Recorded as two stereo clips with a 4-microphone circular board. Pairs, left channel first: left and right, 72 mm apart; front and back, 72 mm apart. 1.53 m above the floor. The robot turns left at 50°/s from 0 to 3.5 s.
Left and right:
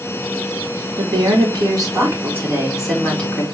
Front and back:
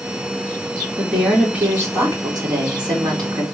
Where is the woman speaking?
85° right, 4 m; by 3.4 s 155° left, 4 m.